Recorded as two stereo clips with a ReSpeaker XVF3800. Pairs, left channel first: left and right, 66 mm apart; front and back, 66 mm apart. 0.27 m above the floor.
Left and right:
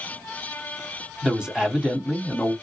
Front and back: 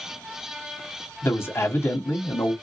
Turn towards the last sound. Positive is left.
turn(degrees=-15)